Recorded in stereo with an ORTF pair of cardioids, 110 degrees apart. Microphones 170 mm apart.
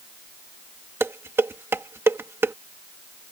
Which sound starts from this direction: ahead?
Dishes clattering, at 1.0 s.